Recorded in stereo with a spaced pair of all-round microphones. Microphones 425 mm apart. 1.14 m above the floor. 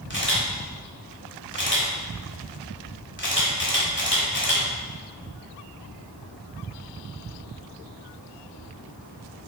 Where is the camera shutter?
25° left (ahead or behind), 1.1 m.